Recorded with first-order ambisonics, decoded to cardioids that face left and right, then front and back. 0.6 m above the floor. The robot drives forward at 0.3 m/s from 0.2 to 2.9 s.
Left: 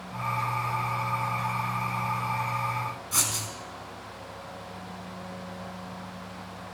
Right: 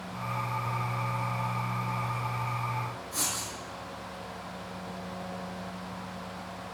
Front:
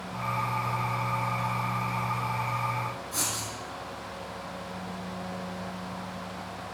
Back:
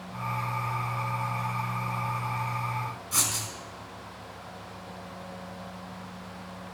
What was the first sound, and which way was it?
Writing, 135° left.